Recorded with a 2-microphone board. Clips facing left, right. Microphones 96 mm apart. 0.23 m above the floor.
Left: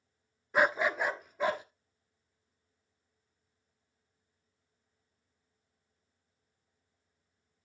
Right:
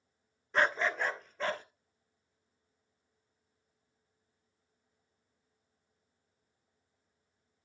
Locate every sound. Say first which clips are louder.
0.5 s a dog barking: left 2 dB; 10° left (ahead or behind), 0.5 m